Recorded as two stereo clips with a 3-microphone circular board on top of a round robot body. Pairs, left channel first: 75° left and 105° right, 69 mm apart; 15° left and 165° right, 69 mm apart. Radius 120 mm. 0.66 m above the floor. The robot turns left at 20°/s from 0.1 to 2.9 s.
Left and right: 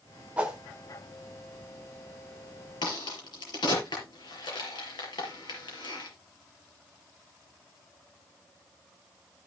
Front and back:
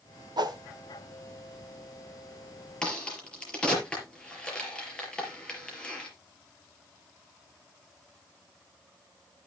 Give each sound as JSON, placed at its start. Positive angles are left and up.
{"t": 0.4, "sound": "a whoosh", "azimuth_deg": 180, "distance_m": 1.5}
{"t": 2.8, "sound": "a crack", "azimuth_deg": 95, "distance_m": 5.0}